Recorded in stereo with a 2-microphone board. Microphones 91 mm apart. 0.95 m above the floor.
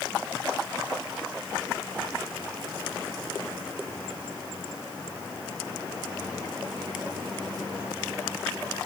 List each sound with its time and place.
Only background noise.